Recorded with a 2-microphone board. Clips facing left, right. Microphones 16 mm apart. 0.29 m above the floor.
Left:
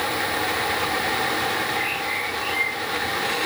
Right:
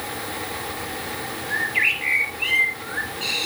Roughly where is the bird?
Right.